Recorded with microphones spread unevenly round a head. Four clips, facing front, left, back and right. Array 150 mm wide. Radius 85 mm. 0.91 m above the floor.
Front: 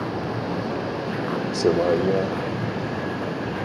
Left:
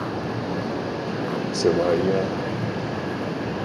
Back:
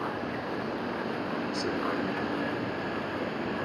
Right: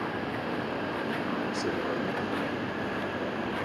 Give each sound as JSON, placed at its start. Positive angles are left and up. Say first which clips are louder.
{"t": 0.0, "sound": "a vehicle", "louder": "left 5 dB, front 6 dB", "azimuth_deg": 45}